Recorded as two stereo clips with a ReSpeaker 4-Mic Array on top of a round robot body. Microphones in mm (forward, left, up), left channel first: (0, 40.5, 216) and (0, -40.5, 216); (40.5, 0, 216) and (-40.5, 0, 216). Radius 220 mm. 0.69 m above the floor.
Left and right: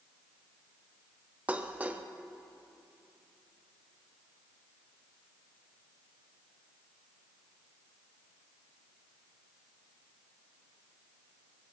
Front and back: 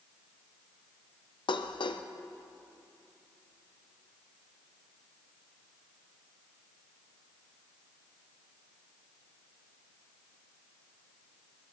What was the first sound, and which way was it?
Dishes clattering, 20° right.